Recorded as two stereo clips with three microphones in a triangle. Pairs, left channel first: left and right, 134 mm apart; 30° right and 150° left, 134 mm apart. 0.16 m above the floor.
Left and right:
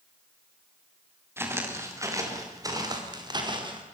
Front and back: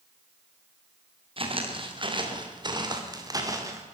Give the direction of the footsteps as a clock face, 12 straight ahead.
5 o'clock.